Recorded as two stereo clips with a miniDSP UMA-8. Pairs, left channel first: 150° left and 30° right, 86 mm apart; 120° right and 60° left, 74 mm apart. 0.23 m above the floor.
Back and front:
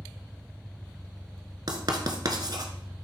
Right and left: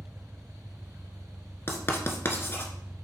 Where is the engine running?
155° left, 0.7 m.